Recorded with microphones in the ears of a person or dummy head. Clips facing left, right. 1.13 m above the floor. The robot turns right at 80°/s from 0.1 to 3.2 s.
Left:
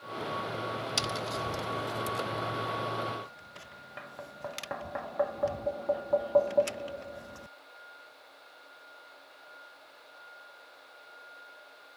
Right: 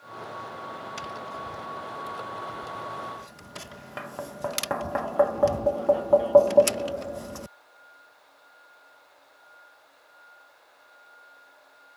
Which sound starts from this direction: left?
Tapping, at 1.0 s.